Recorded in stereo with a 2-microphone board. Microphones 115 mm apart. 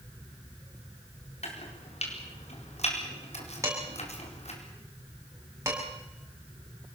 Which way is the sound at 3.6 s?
25° right (ahead or behind).